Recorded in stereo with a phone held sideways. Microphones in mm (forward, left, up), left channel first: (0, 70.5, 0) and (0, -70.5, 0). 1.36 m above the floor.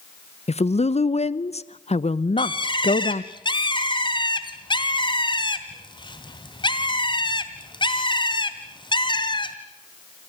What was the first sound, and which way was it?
A woman speaking, 50° left (ahead or behind).